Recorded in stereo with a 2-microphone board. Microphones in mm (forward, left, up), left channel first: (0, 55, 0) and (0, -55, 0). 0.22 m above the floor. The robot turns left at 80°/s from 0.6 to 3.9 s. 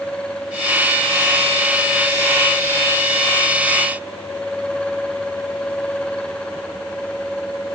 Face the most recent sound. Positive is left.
No sound to turn to.